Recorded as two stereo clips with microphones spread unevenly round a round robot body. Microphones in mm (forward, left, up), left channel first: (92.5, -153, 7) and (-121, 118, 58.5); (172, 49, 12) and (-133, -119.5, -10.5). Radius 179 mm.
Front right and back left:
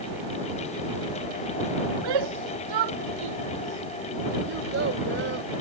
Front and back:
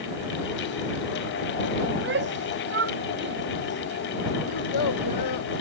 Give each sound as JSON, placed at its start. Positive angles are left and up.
{"t": 1.9, "sound": "a shout", "azimuth_deg": 145}
{"t": 4.5, "sound": "a child speaking", "azimuth_deg": 65}